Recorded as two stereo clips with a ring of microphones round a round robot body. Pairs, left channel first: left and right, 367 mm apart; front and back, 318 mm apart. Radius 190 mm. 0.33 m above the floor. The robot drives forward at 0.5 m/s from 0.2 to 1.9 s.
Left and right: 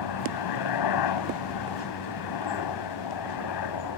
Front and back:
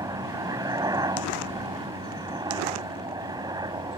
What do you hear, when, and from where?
0.0 s a helicopter: 100° left; by 4.0 s 105° left